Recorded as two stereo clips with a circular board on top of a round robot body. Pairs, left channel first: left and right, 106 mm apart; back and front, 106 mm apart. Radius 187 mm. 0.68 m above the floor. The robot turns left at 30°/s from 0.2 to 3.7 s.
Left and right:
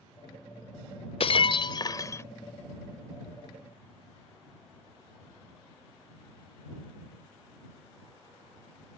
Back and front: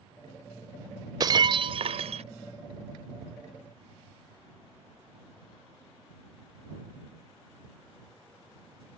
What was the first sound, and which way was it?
Breaking glass, 55° left.